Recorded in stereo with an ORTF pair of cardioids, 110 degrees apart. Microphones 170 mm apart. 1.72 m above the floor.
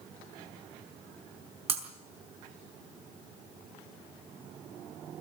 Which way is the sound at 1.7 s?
40° right.